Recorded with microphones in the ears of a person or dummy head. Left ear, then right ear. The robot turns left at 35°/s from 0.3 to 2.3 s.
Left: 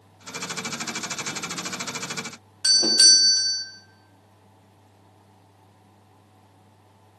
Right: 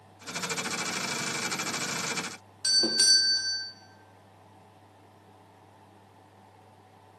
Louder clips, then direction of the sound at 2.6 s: Left 7 dB; 15° left (ahead or behind).